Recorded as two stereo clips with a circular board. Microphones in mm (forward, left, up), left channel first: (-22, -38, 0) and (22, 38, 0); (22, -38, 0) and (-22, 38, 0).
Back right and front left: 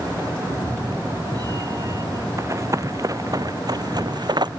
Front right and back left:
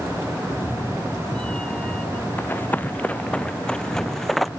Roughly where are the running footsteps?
Ahead.